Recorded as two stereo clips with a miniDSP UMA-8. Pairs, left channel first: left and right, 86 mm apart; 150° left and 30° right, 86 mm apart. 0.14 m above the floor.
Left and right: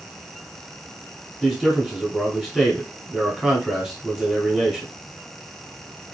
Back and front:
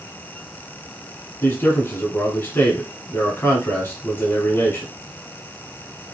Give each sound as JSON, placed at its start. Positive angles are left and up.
{"t": 1.4, "sound": "a man speaking", "azimuth_deg": 180, "distance_m": 1.2}